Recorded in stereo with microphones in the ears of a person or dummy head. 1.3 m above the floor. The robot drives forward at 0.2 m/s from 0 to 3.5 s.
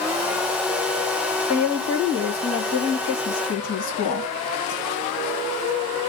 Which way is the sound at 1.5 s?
65° left (ahead or behind).